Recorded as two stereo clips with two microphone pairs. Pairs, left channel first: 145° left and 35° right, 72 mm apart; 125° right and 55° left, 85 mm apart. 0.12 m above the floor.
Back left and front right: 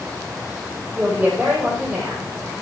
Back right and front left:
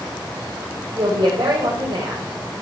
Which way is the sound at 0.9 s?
35° left.